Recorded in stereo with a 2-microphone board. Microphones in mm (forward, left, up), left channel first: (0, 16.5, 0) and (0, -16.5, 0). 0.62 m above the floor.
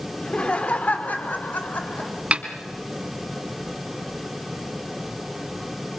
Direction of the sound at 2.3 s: 45° right (ahead or behind).